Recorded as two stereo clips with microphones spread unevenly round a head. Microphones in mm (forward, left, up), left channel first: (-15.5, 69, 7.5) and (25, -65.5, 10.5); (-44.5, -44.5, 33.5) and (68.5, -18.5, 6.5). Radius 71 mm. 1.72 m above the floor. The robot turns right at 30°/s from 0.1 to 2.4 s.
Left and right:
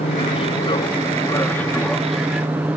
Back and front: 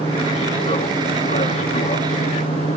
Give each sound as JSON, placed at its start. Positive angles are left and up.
{"t": 0.0, "sound": "an aircraft", "azimuth_deg": 135}